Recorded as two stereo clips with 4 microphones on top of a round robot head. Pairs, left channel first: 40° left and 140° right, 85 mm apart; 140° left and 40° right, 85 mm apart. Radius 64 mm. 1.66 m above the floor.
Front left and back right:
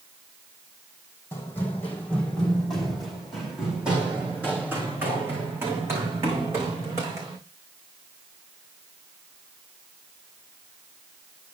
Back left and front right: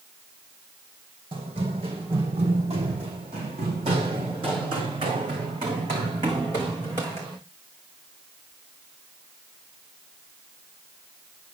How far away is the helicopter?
I don't hear a helicopter.